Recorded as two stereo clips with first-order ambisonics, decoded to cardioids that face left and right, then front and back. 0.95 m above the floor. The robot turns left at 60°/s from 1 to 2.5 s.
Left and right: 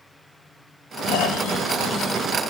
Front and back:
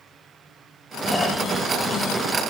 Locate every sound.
1.1 s snoring: 85° left, 1.3 m; by 2.3 s 15° left, 1.3 m